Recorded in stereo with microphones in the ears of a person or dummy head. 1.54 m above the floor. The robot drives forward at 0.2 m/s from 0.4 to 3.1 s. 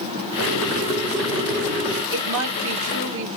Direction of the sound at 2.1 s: 65° right (ahead or behind).